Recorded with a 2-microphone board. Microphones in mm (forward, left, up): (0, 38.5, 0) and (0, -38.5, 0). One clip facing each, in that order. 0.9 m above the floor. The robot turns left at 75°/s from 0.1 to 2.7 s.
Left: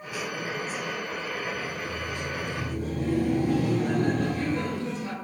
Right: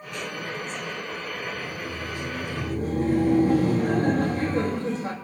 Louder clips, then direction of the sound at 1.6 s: Even; 60° right.